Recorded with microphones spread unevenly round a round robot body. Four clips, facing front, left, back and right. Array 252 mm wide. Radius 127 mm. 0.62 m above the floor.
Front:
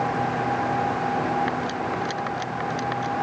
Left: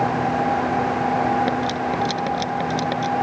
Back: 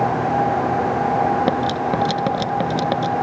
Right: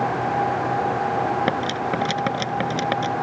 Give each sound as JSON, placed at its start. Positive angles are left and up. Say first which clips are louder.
{"t": 1.5, "sound": "cutlery clinking", "louder": "left 1 dB, back 7 dB", "azimuth_deg": -165}